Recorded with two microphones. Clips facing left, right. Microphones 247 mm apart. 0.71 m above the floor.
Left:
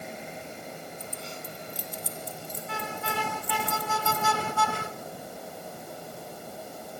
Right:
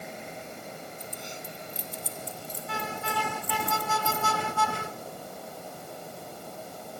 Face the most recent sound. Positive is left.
turn(degrees=-55)  # may be behind; listen again after turning